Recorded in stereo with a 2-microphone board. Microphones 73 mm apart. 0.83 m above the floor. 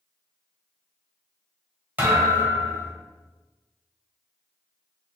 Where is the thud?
25° right (ahead or behind), 1.4 m.